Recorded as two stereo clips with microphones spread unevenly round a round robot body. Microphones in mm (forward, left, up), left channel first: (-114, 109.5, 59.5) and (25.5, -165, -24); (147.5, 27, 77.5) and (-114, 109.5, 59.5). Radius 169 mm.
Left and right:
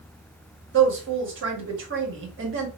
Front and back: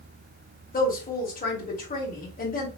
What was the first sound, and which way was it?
A woman speaking, 75° right.